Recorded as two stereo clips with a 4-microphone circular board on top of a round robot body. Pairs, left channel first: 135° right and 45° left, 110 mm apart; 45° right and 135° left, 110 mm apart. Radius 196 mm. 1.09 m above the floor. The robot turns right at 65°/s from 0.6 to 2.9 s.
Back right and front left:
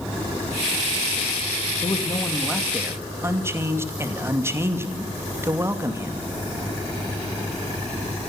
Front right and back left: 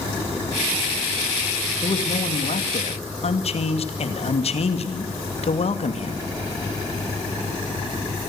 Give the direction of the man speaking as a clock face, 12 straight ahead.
3 o'clock.